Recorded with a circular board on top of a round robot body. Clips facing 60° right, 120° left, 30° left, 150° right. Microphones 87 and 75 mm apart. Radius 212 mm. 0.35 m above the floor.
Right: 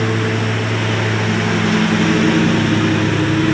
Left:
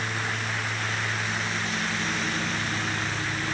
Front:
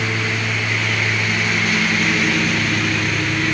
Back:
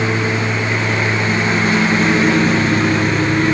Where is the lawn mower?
90° right.